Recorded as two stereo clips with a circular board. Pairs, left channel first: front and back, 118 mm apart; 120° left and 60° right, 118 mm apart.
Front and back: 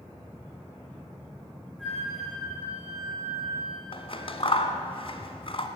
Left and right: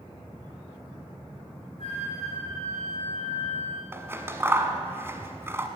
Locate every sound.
1.8 s a flute: 90° left, 5 m
3.9 s scissors: 5° left, 1.0 m